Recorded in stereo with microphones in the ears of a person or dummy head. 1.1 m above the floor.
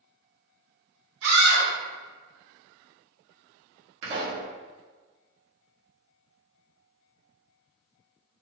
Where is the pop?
70° right (ahead or behind), 1.4 m.